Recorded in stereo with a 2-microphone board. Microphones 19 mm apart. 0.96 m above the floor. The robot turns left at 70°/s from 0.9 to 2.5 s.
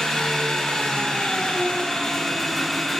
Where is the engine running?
120° left, 2.5 m; by 3.0 s 5° left, 2.5 m.